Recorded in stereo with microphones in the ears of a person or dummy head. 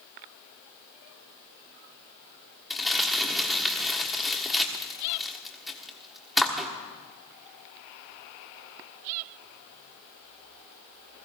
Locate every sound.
2.7 s crumpling: centre (ahead or behind), 1.4 m